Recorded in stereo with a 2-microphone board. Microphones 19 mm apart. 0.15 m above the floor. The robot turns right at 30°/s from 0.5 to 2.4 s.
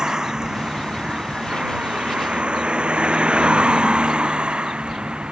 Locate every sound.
0.0 s a vehicle: 45° right (ahead or behind); by 5.3 s 70° right (ahead or behind)